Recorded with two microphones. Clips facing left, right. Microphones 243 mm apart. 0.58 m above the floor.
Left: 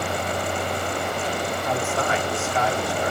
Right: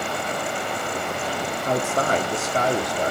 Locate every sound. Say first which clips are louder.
1.6 s a man speaking: right 4 dB; 40° right (ahead or behind), 1.4 m